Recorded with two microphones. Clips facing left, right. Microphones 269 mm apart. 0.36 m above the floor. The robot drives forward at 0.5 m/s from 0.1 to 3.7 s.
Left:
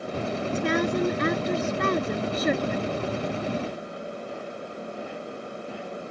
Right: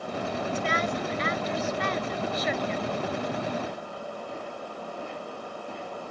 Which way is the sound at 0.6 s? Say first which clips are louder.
Left 10 dB; 60° left (ahead or behind).